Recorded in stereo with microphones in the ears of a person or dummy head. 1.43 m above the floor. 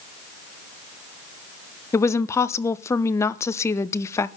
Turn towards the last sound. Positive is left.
turn(degrees=15)  # may be behind; listen again after turning